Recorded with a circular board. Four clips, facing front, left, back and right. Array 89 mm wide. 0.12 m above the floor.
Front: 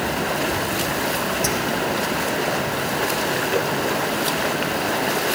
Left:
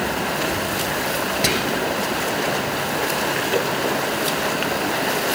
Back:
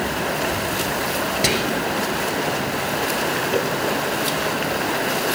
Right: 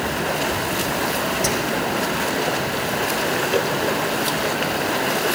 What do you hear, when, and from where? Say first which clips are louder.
1.4 s whispering: even, back 1 dB; 145° left, 1.6 m